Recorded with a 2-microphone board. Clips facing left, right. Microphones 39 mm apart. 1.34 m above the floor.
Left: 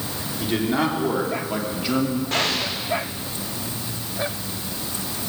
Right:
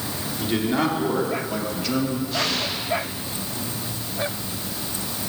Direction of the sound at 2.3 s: 75° left (ahead or behind).